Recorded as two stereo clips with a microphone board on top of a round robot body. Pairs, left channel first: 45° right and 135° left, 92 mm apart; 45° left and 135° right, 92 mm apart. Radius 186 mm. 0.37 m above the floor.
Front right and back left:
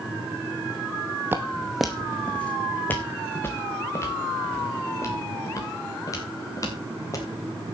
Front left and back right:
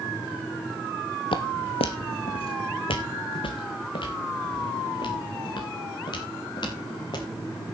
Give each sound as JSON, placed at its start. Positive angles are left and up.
{"t": 1.3, "sound": "footsteps", "azimuth_deg": 70, "distance_m": 1.0}